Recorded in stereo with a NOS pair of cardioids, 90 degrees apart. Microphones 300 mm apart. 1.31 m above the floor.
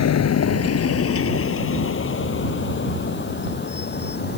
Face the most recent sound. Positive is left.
turn(degrees=35)